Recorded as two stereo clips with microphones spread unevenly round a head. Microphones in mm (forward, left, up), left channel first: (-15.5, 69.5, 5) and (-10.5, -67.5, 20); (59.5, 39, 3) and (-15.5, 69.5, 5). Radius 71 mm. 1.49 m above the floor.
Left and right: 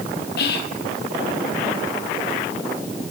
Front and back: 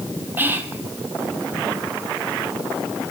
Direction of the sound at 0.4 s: 95° left.